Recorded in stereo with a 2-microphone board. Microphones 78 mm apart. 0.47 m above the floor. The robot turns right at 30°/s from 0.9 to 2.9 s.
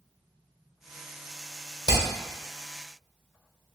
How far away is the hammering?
About 1.3 m.